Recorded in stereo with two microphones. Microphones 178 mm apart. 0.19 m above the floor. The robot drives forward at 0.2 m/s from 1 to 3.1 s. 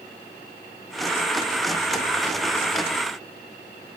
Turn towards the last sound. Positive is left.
No sound to turn to.